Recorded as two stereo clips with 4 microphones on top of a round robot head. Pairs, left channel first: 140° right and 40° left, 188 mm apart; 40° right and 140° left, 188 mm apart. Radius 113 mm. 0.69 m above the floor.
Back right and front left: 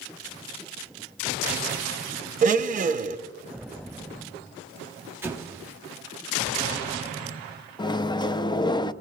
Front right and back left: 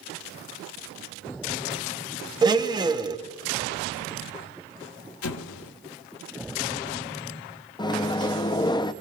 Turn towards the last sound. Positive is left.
turn(degrees=-90)